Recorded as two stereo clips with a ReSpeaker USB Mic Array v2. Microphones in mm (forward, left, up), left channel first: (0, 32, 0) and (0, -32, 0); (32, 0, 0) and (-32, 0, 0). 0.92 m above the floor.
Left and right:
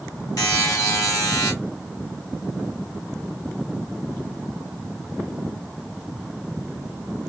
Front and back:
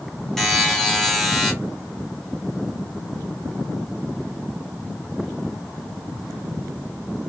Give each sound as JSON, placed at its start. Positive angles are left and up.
{"t": 0.4, "sound": "a buzzer", "azimuth_deg": 85, "distance_m": 1.3}